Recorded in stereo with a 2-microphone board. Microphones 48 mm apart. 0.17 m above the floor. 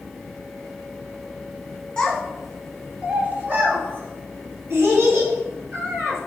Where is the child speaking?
15° left (ahead or behind), 1.1 m; by 6.2 s 65° right (ahead or behind), 3 m.